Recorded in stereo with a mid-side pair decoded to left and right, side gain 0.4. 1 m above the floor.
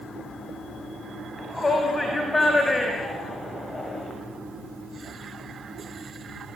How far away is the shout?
About 6.5 m.